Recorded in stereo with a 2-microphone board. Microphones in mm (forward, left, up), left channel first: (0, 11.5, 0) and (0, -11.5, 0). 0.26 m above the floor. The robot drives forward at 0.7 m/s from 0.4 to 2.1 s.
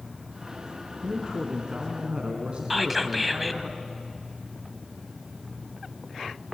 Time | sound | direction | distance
1.0 | a man speaking | 40° right (ahead or behind) | 3.5 m
2.7 | whispering | 5° right (ahead or behind) | 1.3 m